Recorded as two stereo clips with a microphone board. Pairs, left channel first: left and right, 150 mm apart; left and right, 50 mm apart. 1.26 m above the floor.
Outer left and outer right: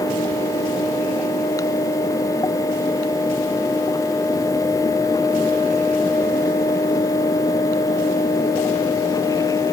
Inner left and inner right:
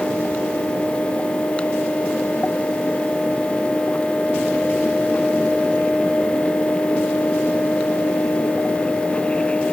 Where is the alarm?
No alarm in this recording.